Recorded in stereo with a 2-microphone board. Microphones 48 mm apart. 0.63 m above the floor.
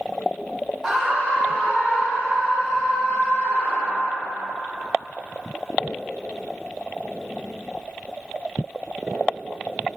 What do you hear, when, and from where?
0.8 s a scream: 5° right (ahead or behind), 0.6 m; by 4.1 s 40° left (ahead or behind), 4 m